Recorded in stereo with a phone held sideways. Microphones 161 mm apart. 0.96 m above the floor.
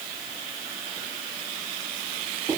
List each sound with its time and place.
Only background noise.